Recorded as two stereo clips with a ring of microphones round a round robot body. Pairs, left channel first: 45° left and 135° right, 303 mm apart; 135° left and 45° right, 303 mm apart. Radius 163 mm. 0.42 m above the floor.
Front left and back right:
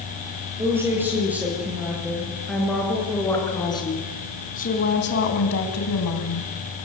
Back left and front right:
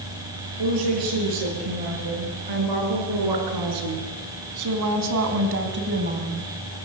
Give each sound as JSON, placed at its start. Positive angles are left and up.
{"t": 0.6, "sound": "a woman speaking", "azimuth_deg": -55, "distance_m": 9.5}